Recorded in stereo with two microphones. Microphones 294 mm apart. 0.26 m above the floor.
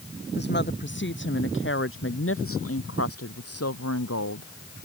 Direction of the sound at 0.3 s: 35° left (ahead or behind).